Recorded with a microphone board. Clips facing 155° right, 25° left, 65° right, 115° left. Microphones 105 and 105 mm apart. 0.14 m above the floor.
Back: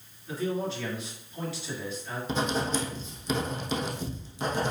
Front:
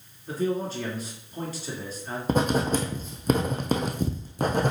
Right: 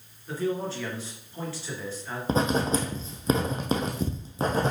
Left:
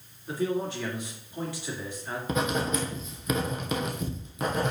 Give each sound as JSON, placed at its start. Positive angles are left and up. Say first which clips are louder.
{"t": 0.3, "sound": "a man speaking", "louder": "front 3 dB, even", "azimuth_deg": 45, "distance_m": 2.5}
{"t": 2.3, "sound": "writing", "louder": "front 5 dB, right 4 dB", "azimuth_deg": -10, "distance_m": 1.5}